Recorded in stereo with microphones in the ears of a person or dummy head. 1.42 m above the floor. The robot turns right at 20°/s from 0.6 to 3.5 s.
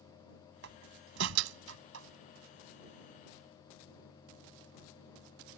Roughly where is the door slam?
Right.